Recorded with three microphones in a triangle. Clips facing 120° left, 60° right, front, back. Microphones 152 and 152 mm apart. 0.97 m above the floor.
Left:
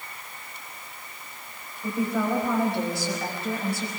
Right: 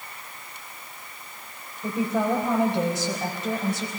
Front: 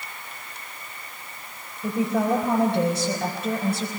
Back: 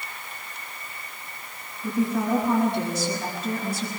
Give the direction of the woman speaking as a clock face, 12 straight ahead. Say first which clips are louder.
Right 1 dB, front 1 dB; 12 o'clock.